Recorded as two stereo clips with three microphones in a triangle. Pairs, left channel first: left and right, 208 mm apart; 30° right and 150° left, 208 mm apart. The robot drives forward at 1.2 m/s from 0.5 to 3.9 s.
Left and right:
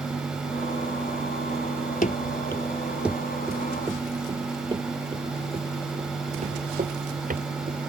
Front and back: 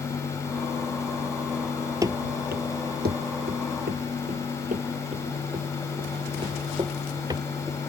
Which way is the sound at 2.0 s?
85° left.